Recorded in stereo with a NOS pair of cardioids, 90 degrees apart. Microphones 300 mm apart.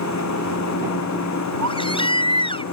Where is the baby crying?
15° left.